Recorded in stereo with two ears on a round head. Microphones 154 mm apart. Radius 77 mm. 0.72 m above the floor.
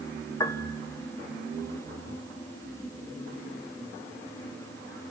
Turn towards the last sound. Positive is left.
turn(degrees=20)  # may be behind; listen again after turning